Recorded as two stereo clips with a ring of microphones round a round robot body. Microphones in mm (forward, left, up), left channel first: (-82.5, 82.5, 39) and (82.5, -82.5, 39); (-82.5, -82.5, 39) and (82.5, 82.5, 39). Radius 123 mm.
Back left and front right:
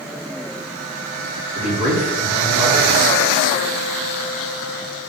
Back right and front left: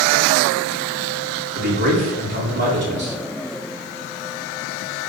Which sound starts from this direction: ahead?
A man speaking, at 1.6 s.